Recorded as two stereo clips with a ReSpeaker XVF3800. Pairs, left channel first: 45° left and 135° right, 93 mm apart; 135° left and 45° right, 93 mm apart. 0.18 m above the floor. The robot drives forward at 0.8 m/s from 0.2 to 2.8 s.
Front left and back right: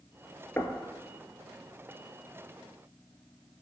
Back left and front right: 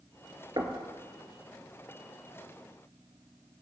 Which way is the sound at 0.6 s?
15° right.